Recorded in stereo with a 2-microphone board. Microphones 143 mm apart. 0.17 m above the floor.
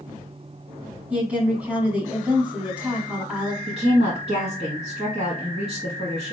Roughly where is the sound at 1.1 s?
Centre.